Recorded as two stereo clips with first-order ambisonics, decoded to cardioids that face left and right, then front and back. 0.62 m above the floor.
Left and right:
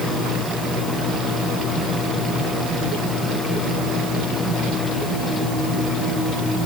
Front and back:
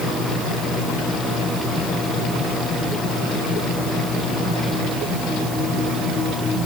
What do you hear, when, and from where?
Only background noise.